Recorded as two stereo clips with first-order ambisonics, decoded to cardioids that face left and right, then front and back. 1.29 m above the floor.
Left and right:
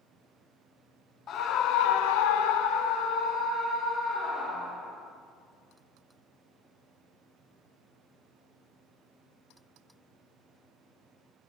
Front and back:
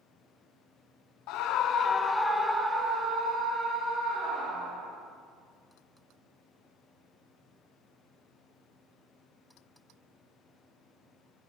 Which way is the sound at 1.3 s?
35° left.